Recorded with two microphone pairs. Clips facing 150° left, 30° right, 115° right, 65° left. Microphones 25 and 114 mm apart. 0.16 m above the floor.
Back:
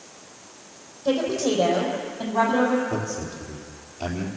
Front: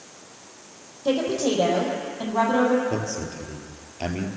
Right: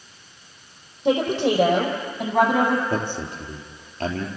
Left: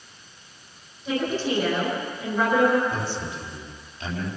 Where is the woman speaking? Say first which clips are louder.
Even, right 6 dB; 100° right, 6 m; by 2.8 s 115° right, 6 m.